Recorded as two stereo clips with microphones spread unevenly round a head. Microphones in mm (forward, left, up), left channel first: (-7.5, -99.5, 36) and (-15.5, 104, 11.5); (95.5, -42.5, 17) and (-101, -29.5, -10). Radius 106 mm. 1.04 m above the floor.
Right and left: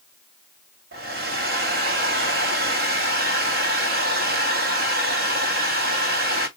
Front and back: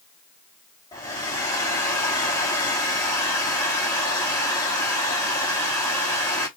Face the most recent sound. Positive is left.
turn(degrees=75)